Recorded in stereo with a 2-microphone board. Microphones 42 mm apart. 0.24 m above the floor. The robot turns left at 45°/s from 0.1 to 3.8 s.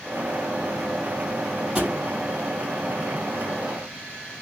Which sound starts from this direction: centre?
A thud, at 1.8 s.